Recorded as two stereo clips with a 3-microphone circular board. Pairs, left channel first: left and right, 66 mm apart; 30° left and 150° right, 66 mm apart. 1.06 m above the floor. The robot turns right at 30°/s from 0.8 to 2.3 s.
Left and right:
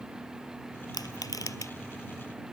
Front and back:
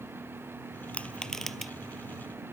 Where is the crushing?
100° left; by 1.7 s 125° left.